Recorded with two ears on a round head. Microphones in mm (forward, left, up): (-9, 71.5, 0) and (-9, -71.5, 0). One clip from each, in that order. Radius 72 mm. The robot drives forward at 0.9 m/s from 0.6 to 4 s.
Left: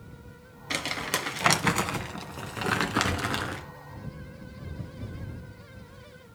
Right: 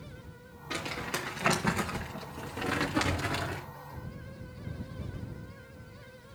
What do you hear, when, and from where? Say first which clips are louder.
0.7 s crumpling: left 5 dB; 85° left, 1.8 m; by 3.6 s 35° left (ahead or behind), 3 m